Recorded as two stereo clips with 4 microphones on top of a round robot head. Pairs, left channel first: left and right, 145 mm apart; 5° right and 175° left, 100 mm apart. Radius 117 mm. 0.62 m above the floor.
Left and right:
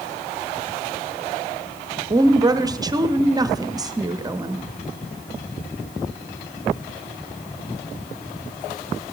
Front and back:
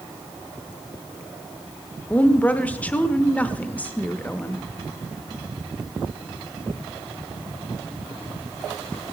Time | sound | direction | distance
2.1 | a woman speaking | 65° right | 0.8 m